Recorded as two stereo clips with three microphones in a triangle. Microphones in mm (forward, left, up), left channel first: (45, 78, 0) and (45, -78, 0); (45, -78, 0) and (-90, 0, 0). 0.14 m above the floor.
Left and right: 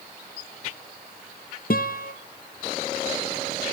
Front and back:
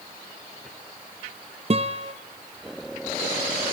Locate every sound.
1.7 s a guitar: 105° left, 1.4 m